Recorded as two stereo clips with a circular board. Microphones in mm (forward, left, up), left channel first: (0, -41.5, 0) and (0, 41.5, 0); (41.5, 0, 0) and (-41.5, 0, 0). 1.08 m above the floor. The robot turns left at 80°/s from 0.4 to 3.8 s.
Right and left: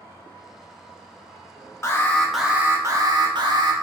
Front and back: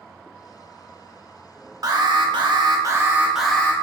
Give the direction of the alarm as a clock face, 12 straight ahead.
5 o'clock.